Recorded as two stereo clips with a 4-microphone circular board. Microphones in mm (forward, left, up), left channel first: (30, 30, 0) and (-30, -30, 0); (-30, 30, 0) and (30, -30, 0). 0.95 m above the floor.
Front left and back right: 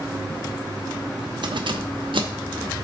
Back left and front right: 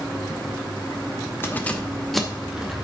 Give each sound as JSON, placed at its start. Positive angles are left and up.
{"t": 1.4, "sound": "keys jangling", "azimuth_deg": -160, "distance_m": 0.8}